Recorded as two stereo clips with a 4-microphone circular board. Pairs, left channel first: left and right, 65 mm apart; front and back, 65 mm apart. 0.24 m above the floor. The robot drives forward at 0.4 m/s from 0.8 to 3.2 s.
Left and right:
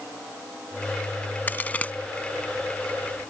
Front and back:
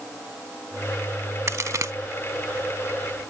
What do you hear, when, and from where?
1.5 s a crack: 145° left; by 1.9 s 155° left